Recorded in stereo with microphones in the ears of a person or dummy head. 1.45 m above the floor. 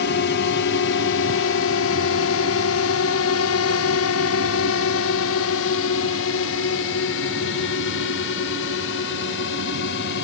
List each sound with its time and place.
0.0 s a drone: 60° left (ahead or behind); by 10.2 s 55° left (ahead or behind)